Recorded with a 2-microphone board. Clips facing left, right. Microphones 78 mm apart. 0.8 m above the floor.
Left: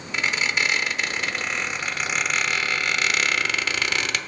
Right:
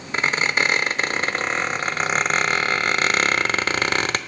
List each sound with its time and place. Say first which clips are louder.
0.1 s a squeak: right 3 dB; 40° right (ahead or behind), 0.6 m